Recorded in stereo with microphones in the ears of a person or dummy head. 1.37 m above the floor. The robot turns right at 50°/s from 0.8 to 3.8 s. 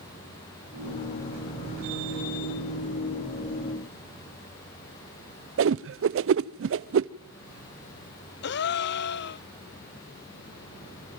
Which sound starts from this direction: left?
A gasp, at 8.4 s.